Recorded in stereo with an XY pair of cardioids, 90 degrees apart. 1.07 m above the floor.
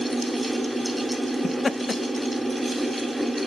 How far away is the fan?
About 1.9 m.